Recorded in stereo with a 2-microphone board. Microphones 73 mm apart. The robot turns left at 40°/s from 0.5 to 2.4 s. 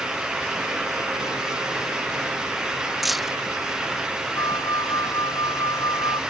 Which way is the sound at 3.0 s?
Centre (ahead or behind).